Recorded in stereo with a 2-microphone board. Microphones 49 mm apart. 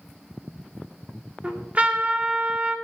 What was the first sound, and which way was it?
A trumpet, 30° right (ahead or behind).